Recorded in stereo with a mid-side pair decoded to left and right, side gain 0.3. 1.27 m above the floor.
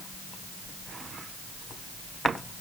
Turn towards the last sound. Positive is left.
No sound to turn to.